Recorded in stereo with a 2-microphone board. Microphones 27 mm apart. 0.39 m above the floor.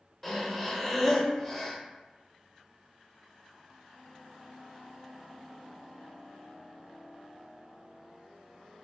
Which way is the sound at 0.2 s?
10° left (ahead or behind).